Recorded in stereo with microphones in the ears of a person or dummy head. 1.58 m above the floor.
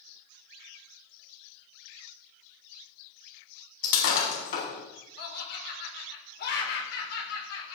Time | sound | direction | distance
3.8 | breaking glass | 55° left (ahead or behind) | 6 m
5.2 | laughter | 65° left (ahead or behind) | 4.5 m